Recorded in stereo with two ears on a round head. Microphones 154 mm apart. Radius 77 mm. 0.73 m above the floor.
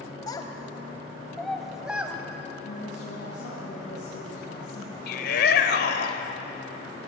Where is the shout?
65° left (ahead or behind), 3 m.